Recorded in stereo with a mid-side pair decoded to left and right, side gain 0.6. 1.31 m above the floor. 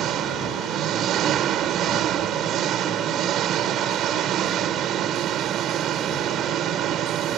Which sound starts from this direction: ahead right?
An engine running, at 0.0 s.